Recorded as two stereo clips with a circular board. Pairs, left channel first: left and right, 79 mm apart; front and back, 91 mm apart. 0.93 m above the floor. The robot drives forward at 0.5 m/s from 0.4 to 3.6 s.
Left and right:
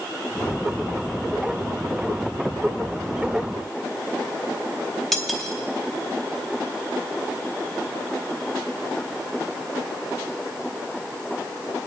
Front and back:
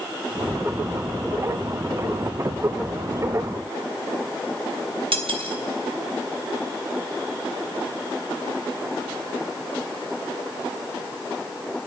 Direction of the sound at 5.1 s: 175° left.